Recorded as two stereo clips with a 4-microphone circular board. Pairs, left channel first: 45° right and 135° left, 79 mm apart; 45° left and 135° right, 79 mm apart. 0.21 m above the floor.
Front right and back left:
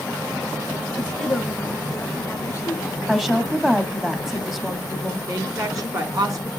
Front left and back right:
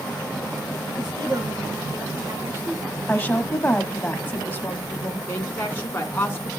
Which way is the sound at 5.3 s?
105° left.